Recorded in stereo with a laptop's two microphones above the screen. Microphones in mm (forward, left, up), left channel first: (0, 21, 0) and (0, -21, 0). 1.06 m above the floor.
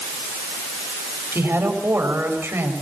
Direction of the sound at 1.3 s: 75° right (ahead or behind).